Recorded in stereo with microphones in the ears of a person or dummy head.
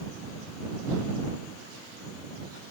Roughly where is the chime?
I don't hear a chime.